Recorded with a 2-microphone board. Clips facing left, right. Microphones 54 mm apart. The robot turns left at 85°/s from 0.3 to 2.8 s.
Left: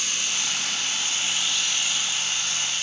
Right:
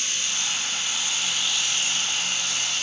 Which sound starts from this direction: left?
Running water, at 0.0 s.